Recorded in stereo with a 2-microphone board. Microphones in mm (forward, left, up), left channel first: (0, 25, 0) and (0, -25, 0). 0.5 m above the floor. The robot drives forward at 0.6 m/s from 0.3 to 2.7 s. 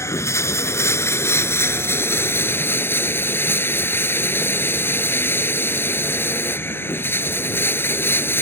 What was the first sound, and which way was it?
Running water, 70° left (ahead or behind).